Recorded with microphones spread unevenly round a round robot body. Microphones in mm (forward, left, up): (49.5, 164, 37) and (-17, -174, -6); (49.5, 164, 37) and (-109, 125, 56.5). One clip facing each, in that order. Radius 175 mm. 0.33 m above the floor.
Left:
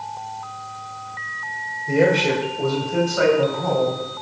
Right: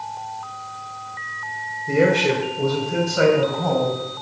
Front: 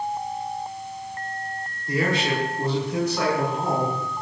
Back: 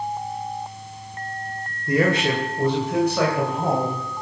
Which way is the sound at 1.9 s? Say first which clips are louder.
Even, back 4 dB; 170° right.